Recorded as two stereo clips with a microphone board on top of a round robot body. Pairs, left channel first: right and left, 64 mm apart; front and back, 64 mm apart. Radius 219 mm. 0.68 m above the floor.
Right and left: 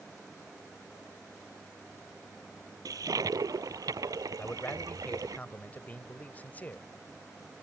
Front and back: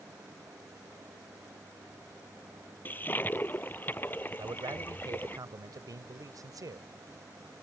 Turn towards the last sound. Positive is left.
turn(degrees=-160)